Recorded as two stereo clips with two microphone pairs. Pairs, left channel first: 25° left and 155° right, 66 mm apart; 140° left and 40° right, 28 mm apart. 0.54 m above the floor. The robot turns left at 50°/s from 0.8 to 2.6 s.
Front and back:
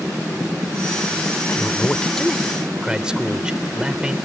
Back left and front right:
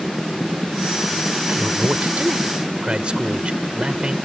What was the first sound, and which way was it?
A man speaking, 20° right.